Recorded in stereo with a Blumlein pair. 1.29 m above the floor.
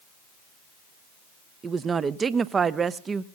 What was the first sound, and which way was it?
A woman speaking, 20° right.